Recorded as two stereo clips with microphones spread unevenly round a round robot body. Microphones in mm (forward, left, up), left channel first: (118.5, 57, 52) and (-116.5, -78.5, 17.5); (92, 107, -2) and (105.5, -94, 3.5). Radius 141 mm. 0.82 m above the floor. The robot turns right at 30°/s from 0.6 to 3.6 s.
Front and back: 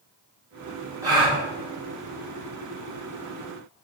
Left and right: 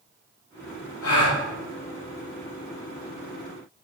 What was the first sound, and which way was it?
A gasp, 130° left.